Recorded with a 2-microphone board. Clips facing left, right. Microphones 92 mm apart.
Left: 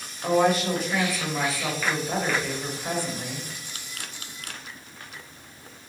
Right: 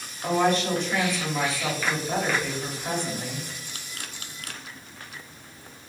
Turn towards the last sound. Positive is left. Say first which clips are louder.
# left 1 dB
turn(degrees=5)  # may be behind; listen again after turning